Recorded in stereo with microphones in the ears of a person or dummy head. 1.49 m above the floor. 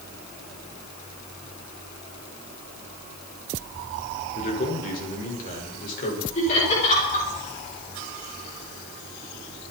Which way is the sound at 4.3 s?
40° left (ahead or behind).